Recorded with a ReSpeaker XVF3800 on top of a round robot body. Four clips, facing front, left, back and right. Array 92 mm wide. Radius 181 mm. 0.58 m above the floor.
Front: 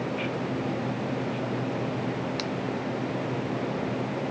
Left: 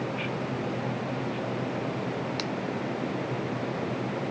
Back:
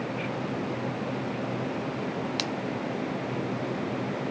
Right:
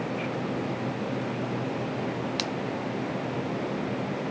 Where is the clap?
No clap in this recording.